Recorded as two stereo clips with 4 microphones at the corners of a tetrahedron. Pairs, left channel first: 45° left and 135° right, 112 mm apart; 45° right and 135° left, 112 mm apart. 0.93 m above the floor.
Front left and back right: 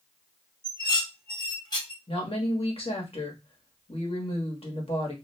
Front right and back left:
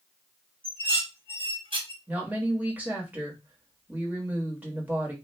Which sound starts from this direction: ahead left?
A woman speaking, at 2.1 s.